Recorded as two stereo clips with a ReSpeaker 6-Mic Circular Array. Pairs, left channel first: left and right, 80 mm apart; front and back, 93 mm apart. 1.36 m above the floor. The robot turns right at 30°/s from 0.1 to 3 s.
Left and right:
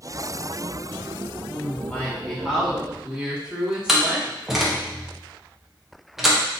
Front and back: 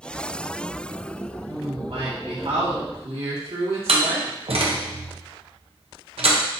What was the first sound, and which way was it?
A woman speaking, 145° left.